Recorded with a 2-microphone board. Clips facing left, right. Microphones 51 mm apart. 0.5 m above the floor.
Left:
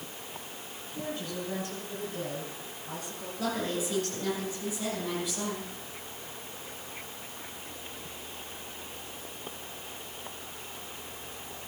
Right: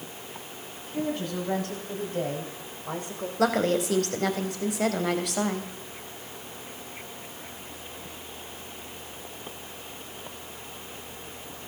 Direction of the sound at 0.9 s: 75° right (ahead or behind).